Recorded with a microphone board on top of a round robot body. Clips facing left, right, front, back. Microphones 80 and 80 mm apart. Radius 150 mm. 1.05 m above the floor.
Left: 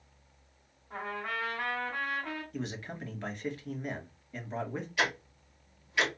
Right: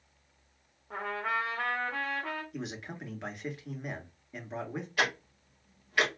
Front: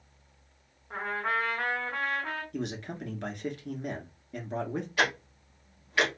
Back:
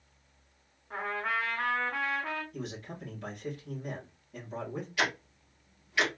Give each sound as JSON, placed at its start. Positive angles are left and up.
{"t": 0.9, "sound": "a trumpet", "azimuth_deg": -85, "distance_m": 0.9}
{"t": 2.5, "sound": "a man speaking", "azimuth_deg": -10, "distance_m": 2.0}
{"t": 5.0, "sound": "ticking", "azimuth_deg": -45, "distance_m": 1.5}